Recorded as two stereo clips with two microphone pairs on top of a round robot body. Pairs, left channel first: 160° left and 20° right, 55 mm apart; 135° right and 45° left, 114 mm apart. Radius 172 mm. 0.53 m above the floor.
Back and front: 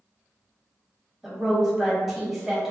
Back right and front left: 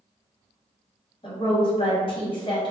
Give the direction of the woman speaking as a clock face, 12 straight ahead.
3 o'clock.